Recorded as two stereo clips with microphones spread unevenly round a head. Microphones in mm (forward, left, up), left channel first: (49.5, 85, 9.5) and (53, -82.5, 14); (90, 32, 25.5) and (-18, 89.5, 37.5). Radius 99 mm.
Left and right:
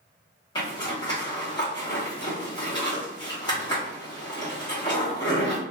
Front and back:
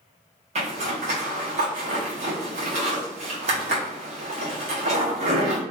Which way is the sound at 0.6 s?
160° left.